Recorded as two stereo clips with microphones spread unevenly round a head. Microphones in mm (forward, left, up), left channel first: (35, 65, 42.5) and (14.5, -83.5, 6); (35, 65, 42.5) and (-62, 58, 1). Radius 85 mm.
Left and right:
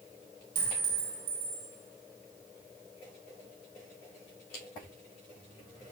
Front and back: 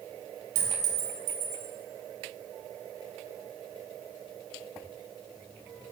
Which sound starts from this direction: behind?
A clink, at 0.6 s.